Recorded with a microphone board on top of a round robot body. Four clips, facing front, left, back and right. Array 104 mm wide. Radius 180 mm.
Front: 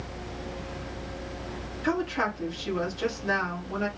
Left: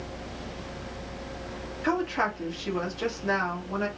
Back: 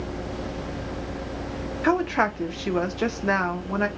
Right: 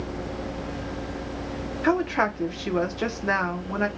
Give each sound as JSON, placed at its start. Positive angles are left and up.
{"t": 1.8, "sound": "a woman speaking", "azimuth_deg": -145, "distance_m": 1.0}